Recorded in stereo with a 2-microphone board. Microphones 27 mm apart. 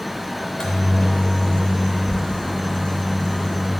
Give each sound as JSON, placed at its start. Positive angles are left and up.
{"t": 0.4, "sound": "a microwave", "side_deg": 25, "distance_m": 0.6}